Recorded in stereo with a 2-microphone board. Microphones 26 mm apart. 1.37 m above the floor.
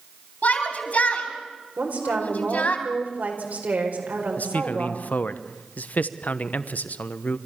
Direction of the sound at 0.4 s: 70° left (ahead or behind).